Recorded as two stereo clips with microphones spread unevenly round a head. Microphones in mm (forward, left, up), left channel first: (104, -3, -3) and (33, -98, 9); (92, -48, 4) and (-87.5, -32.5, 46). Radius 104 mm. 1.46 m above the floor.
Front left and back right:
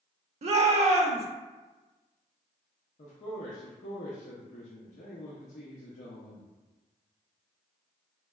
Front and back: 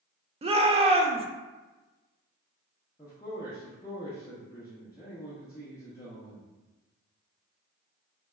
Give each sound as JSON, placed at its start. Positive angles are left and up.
{"t": 0.4, "sound": "a shout", "azimuth_deg": -125, "distance_m": 0.5}
{"t": 3.0, "sound": "a man speaking", "azimuth_deg": 75, "distance_m": 0.5}